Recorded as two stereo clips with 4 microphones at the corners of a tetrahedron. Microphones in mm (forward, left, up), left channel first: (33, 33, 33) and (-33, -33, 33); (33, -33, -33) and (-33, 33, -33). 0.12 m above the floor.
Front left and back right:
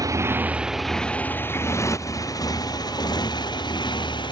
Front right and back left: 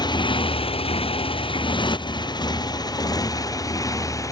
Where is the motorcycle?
85° right; by 4.3 s 10° left.